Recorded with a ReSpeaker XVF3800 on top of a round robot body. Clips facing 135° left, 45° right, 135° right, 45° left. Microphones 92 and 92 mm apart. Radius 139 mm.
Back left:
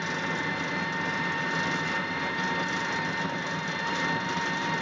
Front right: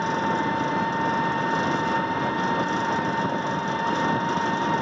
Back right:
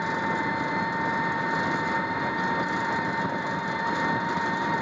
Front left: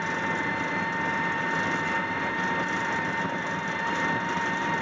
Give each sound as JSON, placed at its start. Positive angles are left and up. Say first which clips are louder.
{"t": 0.0, "sound": "an engine running", "louder": "front right 8 dB, back right 2 dB", "azimuth_deg": -65, "distance_m": 0.8}